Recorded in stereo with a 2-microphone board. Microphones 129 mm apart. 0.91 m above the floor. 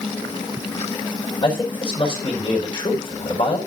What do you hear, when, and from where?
1.4 s a man speaking: 45° left (ahead or behind), 5 m